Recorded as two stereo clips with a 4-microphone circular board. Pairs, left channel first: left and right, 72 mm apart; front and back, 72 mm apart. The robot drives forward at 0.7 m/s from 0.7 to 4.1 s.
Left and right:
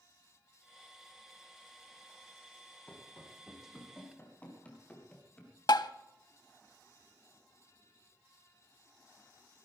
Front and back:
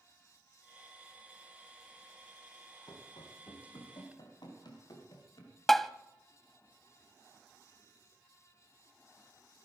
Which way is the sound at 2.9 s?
25° left.